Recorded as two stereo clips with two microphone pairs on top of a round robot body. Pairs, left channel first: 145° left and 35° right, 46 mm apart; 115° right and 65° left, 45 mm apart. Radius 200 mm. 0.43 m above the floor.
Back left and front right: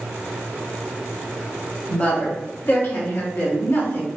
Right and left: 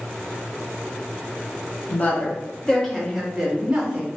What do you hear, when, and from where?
1.9 s a woman speaking: 155° right, 1.3 m; by 4.1 s 130° left, 1.5 m